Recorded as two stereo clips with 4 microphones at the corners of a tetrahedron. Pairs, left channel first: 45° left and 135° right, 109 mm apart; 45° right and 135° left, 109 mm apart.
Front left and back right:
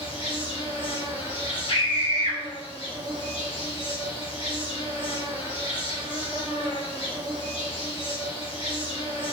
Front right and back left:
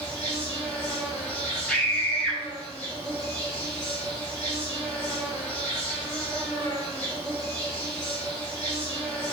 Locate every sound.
0.0 s an insect: 35° left, 1.5 m
1.7 s a scream: 40° left, 1.0 m